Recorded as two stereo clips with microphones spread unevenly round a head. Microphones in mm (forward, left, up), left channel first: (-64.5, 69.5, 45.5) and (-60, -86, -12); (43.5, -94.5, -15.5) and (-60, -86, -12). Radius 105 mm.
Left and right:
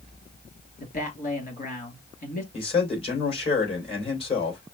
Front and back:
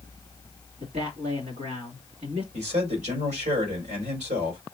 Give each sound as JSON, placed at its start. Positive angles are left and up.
{"t": 0.8, "sound": "a man speaking", "azimuth_deg": 125, "distance_m": 2.5}
{"t": 2.5, "sound": "a man speaking", "azimuth_deg": 145, "distance_m": 3.0}